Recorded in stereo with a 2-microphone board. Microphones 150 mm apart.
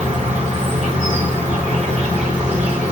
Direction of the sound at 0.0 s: 45° right (ahead or behind).